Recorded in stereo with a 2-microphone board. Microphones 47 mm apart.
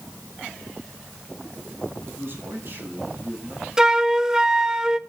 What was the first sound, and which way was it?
A man speaking, 55° right (ahead or behind).